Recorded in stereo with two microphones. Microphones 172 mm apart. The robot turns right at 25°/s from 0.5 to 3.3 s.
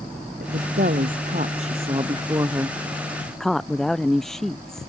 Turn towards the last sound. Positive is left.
turn(degrees=0)